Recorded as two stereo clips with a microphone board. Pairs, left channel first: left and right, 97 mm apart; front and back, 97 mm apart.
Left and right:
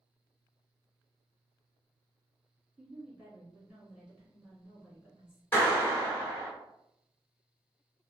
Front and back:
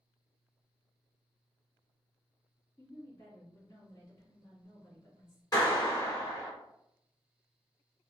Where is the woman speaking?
15° right, 1.8 m.